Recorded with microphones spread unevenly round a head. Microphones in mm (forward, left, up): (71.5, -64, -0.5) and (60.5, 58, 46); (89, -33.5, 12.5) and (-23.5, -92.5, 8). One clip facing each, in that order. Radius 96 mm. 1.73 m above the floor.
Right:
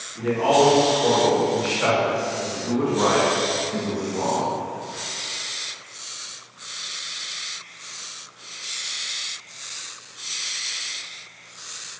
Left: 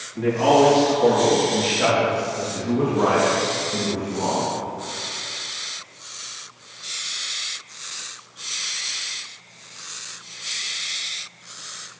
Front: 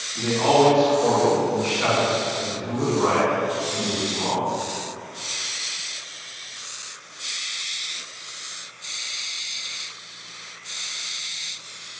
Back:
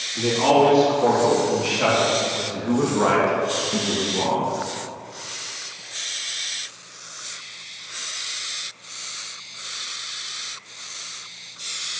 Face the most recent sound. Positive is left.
turn(degrees=-150)